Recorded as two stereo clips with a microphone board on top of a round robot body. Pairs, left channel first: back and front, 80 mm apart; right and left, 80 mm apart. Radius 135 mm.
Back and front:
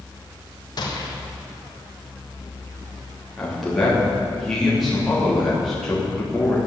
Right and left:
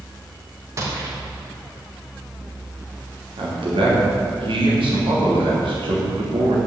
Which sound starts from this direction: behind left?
A gunshot, at 0.8 s.